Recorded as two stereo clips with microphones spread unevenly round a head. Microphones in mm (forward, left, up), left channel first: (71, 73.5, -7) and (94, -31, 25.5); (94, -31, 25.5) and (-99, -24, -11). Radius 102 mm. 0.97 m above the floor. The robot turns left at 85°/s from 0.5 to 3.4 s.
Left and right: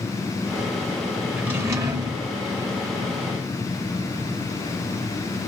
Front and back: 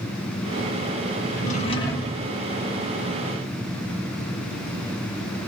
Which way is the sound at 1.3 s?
10° right.